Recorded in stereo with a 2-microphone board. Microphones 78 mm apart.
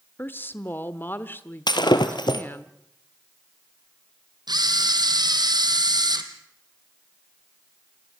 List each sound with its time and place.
0.2 s a woman speaking: 25° left (ahead or behind), 1.2 m
1.7 s breaking glass: 70° left (ahead or behind), 2.5 m
4.5 s a camera shutter: 65° right (ahead or behind), 2.5 m